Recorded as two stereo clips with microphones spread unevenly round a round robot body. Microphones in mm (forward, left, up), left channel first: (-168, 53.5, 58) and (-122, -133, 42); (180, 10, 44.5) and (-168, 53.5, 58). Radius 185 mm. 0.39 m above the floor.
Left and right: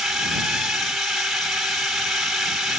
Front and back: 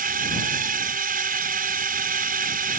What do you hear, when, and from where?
0.0 s a drone: 155° right